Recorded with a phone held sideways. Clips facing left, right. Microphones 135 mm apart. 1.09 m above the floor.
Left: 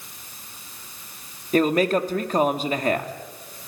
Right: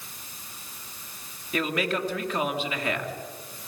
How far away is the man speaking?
About 2 m.